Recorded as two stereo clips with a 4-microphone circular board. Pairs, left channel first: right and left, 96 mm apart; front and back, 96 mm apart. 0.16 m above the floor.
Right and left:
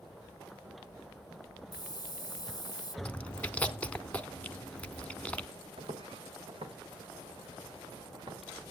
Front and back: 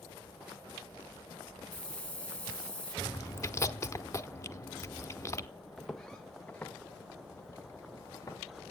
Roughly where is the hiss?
Right.